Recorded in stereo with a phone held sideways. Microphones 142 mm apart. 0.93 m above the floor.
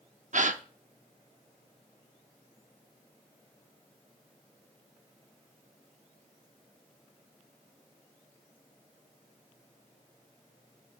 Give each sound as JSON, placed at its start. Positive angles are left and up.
{"t": 0.3, "sound": "a gasp", "side_deg": -60, "distance_m": 0.7}